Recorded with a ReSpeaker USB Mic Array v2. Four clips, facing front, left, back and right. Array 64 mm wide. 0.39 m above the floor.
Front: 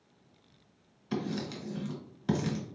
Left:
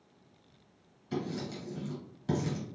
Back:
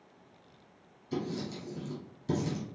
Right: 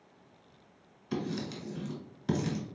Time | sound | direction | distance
1.1 | writing | 25° right | 1.3 m